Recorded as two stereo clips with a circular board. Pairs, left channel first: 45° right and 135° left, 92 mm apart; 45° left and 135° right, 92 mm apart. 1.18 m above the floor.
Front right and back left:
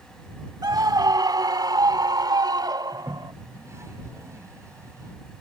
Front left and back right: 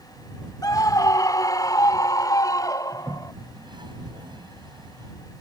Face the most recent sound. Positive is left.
turn(degrees=-165)